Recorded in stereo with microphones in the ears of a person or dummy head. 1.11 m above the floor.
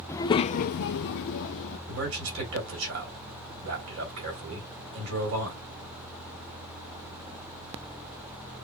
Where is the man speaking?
75° right (ahead or behind), 3.5 m.